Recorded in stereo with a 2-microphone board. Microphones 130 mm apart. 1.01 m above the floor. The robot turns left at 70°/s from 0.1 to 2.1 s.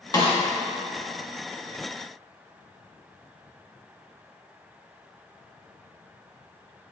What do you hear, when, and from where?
0.1 s a snare drum: 30° left (ahead or behind), 1.6 m; by 0.4 s 45° left (ahead or behind), 1.6 m